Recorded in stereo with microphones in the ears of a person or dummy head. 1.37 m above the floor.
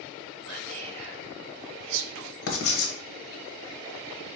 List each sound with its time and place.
0.5 s whispering: 80° right, 0.7 m
2.5 s writing: 70° left (ahead or behind), 0.9 m